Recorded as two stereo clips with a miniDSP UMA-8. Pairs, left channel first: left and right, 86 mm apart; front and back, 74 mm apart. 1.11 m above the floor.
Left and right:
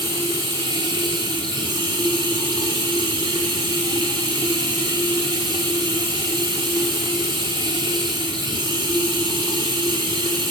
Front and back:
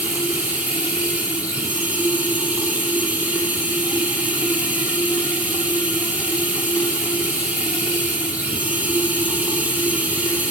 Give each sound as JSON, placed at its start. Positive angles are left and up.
{"t": 0.0, "sound": "running water", "azimuth_deg": -110, "distance_m": 2.5}